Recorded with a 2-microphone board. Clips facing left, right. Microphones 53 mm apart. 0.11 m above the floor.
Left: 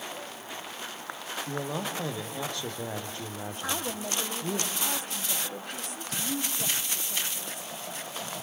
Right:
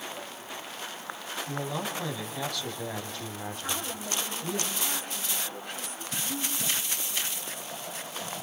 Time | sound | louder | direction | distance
1.5 | a man speaking | even | 30° left (ahead or behind) | 5 m
3.6 | a woman speaking | left 4 dB | 60° left (ahead or behind) | 4.5 m